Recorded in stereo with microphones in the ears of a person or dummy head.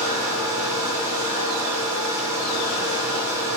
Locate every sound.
0.0 s a fan: 20° right (ahead or behind), 1.1 m